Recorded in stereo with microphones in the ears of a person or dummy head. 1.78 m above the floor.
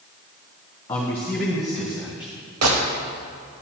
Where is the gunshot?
85° right, 1.2 m.